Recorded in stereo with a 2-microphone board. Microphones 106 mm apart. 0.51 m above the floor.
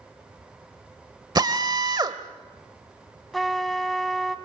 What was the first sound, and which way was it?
A drill, 40° right (ahead or behind).